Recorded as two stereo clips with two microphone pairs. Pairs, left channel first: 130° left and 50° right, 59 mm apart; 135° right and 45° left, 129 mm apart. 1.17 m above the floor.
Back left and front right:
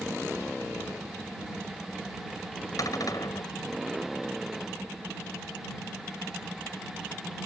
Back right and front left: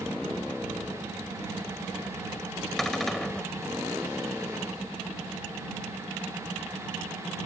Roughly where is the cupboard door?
Behind left.